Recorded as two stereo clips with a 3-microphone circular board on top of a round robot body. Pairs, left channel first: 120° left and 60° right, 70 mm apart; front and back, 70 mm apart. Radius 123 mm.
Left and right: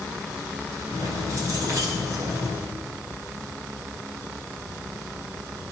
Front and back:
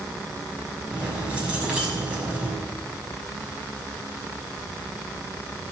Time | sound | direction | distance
0.9 | keys jangling | 110° right | 6.5 m